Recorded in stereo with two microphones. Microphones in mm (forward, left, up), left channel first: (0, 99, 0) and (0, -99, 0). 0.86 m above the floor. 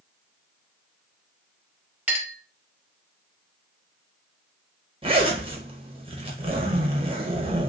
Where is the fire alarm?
No fire alarm in this recording.